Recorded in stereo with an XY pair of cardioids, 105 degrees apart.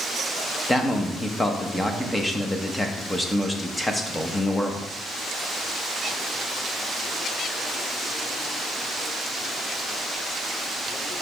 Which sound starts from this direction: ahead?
A man speaking, at 0.7 s.